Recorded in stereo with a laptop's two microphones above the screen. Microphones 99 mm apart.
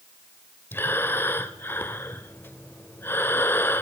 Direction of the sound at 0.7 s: 20° left (ahead or behind).